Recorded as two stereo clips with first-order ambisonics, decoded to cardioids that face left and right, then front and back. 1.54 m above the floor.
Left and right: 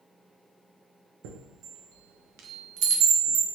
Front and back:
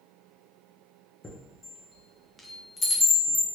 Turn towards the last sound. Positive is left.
turn(degrees=-80)